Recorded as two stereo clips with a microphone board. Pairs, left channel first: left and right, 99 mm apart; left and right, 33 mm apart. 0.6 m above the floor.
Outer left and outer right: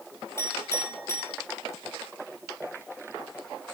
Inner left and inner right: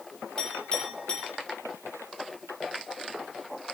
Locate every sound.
0.4 s a clink: 30° left (ahead or behind), 9.5 m